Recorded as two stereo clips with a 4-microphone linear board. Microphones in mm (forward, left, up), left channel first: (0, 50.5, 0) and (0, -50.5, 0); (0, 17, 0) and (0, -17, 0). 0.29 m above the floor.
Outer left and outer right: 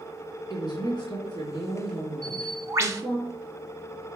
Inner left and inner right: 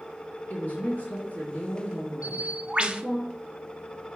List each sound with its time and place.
0.5 s a woman speaking: 45° left (ahead or behind), 3.5 m
2.2 s a bird: 30° right (ahead or behind), 0.8 m